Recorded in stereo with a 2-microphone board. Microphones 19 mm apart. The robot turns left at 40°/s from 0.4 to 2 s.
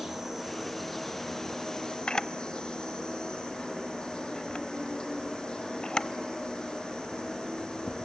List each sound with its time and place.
0.0 s an insect: 160° right, 7.5 m; by 8.1 s 135° left, 7.5 m
2.1 s a camera shutter: 45° left (ahead or behind), 0.7 m